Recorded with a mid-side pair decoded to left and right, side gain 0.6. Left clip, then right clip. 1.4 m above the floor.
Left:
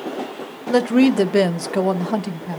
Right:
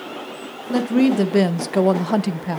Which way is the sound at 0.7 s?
30° left.